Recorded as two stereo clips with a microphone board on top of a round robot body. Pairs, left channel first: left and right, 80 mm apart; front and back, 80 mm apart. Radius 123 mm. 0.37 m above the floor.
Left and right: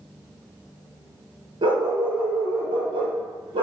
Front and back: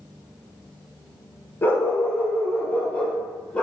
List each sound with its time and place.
1.6 s a dog barking: 65° right, 2 m; by 3.6 s 75° right, 3 m